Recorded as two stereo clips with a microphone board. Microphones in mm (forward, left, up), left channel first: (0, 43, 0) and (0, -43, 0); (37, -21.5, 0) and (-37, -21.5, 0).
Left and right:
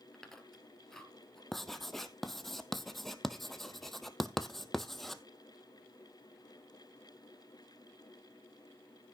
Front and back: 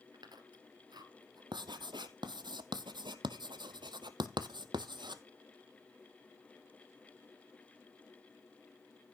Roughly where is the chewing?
Behind.